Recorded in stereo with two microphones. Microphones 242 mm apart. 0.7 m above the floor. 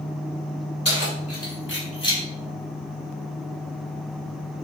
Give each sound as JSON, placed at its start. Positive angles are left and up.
{"t": 0.8, "sound": "keys jangling", "side_deg": 75, "distance_m": 1.4}